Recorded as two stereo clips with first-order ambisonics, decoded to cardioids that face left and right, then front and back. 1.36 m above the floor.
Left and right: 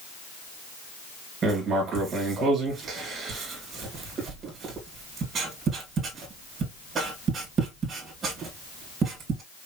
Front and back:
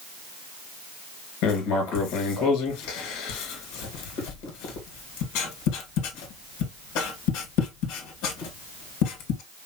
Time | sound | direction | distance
1.4 | writing | 25° right | 1.9 m